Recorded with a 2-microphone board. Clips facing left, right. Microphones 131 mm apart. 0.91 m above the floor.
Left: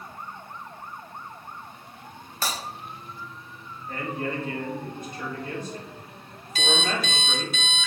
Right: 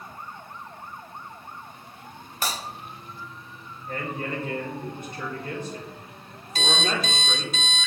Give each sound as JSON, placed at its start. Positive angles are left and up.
{"t": 2.4, "sound": "breaking glass", "side_deg": -15, "distance_m": 3.0}
{"t": 3.9, "sound": "a man speaking", "side_deg": -70, "distance_m": 4.0}
{"t": 6.5, "sound": "an alarm clock", "side_deg": -40, "distance_m": 1.7}